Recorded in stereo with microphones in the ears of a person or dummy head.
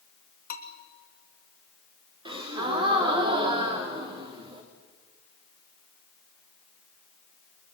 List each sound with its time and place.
0.5 s a bell: 50° left (ahead or behind), 2.5 m
2.2 s a gasp: 25° right (ahead or behind), 3.5 m